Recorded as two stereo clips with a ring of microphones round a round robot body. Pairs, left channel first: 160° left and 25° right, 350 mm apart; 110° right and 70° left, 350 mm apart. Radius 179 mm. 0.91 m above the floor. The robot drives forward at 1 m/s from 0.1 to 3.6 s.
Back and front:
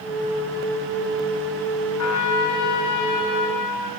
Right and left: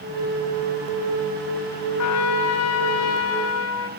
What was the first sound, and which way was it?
A trumpet, 155° right.